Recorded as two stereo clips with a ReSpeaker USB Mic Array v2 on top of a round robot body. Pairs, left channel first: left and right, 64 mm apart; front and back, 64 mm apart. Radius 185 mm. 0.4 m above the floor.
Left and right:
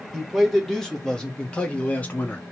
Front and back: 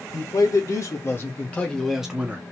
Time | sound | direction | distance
0.1 | a man speaking | 5° left | 2 m